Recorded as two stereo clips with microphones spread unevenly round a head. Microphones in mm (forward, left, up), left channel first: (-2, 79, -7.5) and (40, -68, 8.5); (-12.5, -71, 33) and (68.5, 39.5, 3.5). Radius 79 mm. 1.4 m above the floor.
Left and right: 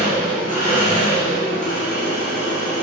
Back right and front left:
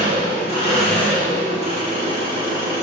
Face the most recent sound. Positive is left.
turn(degrees=110)